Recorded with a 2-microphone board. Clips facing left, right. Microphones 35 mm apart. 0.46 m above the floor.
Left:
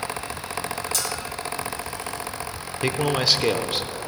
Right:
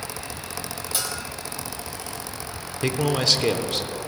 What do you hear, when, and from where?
0.9 s a bell: 25° right (ahead or behind), 2 m
2.8 s a man speaking: 15° left (ahead or behind), 0.9 m